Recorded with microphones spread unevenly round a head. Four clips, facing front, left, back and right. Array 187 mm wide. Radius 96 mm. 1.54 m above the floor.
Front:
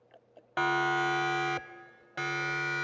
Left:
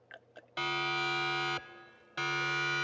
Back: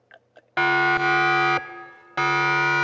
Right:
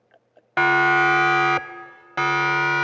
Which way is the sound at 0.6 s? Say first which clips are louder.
Right 17 dB, back 8 dB; 115° right.